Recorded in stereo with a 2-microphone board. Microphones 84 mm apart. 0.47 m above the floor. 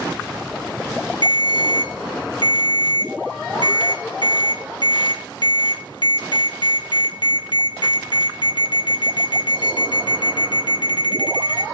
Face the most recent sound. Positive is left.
turn(degrees=70)  # may be behind; listen again after turning